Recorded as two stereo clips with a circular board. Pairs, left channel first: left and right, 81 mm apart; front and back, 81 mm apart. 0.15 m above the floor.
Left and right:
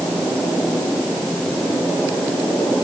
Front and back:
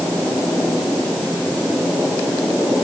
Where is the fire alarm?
I don't hear a fire alarm.